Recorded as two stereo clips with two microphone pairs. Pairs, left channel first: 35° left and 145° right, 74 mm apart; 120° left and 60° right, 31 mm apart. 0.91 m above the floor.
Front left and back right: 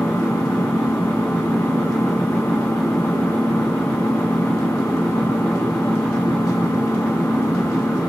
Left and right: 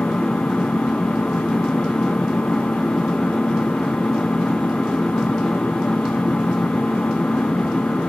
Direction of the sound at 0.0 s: 100° left.